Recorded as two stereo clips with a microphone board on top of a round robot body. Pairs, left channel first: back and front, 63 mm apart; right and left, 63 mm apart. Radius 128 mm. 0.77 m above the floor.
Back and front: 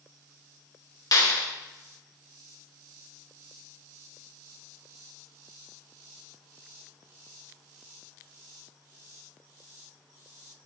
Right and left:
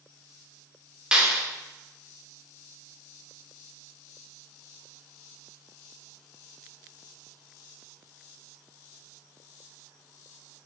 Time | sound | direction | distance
1.1 | a clap | 165° left | 3 m